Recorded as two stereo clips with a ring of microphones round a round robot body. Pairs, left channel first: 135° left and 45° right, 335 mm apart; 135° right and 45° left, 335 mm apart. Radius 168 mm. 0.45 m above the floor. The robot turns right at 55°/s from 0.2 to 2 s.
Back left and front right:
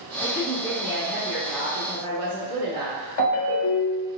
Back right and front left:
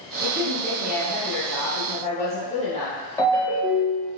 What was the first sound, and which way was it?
A woman speaking, 165° left.